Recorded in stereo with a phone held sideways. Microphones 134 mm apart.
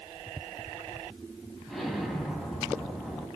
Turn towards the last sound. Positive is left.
turn(degrees=0)  # may be behind; listen again after turning